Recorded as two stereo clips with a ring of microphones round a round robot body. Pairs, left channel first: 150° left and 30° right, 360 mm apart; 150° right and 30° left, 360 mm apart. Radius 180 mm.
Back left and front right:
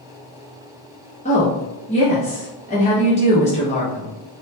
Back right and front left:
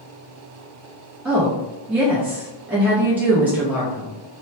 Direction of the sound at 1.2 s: 110° left.